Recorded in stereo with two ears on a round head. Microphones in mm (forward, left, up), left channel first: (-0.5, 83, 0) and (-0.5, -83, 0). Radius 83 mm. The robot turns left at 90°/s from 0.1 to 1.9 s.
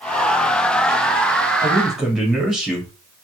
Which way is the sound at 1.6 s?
25° left (ahead or behind).